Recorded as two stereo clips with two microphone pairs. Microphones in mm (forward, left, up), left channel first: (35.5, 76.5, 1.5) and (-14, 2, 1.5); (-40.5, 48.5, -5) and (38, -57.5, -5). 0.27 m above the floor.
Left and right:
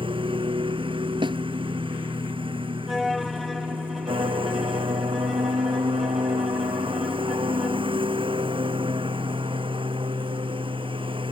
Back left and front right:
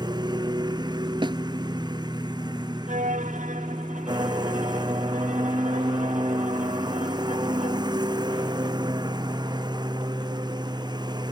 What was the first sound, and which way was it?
A lawn mower, 110° right.